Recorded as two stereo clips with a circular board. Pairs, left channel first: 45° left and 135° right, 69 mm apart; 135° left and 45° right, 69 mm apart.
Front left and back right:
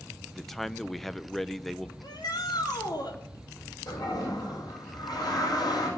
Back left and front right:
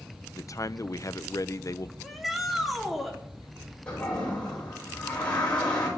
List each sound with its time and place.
0.3 s a man speaking: 135° left, 0.7 m
2.0 s a shout: 45° left, 3.5 m
3.9 s a toilet flushing: 65° left, 8 m